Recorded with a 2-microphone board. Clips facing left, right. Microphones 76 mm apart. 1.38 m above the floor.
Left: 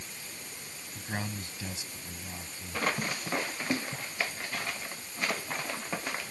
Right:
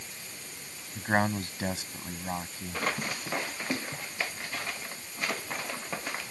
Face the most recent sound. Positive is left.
turn(degrees=-55)  # may be behind; listen again after turning